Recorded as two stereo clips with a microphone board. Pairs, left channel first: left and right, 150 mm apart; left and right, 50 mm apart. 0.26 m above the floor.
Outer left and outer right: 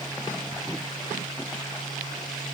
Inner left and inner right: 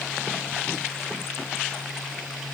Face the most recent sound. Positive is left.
No sound to turn to.